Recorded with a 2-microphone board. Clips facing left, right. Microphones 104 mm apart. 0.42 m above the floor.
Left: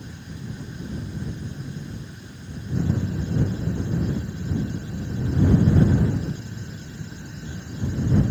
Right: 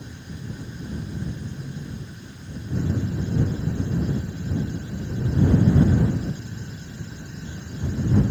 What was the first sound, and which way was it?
Only background noise.